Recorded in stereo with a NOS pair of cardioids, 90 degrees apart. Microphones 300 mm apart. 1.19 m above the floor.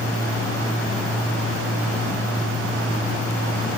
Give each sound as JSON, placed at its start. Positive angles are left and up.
{"t": 0.0, "sound": "a fan", "azimuth_deg": 15, "distance_m": 8.0}